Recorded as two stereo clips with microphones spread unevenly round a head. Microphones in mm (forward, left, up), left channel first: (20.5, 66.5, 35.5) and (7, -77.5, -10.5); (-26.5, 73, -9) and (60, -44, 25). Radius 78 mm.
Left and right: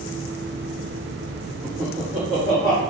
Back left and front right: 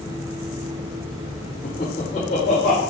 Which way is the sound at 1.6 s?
175° left.